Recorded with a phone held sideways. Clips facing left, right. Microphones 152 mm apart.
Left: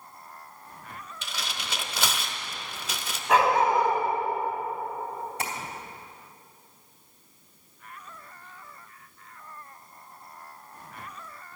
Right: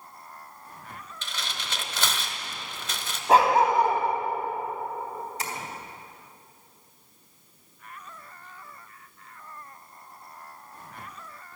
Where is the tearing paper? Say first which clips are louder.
Even; 10° left (ahead or behind), 1.1 m.